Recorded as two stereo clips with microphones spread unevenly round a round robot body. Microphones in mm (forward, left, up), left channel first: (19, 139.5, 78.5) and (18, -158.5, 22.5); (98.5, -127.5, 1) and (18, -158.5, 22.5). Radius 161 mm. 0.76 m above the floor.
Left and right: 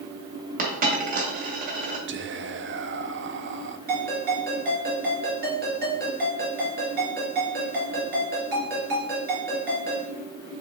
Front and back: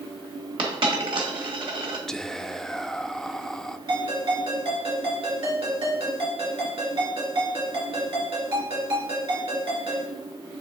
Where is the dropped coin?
155° right, 2 m.